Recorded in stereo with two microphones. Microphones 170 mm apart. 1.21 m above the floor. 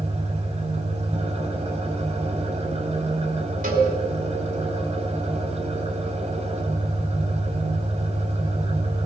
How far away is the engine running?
About 3 m.